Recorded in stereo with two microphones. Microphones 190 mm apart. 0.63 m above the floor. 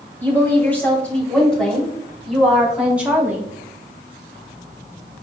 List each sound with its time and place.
0.2 s a woman speaking: 10° left (ahead or behind), 3.5 m; by 3.5 s 10° right (ahead or behind), 2 m